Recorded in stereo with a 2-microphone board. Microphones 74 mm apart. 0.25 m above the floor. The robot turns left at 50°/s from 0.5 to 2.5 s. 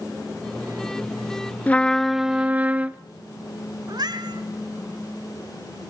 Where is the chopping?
No chopping in this recording.